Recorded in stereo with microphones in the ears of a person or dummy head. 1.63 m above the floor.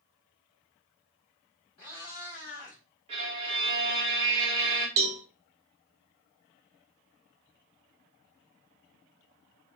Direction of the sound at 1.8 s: 20° left (ahead or behind).